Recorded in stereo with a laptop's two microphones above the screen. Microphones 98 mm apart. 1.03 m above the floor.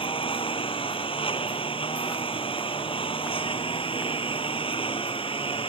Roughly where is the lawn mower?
Left.